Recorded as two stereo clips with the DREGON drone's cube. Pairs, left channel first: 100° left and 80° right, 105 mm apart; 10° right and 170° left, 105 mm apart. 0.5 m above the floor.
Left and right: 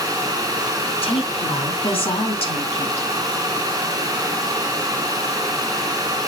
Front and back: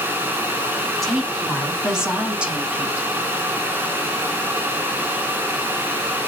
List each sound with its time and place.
1.0 s a woman speaking: 80° left, 3.5 m; by 3.1 s 95° left, 2.5 m